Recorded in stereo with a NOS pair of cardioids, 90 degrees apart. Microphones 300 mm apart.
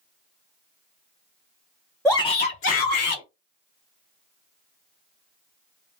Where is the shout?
Straight ahead, 0.5 m; by 3.2 s 70° left, 1.1 m.